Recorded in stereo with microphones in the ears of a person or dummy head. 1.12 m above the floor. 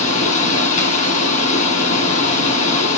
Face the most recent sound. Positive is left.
turn(degrees=40)  # may be behind; listen again after turning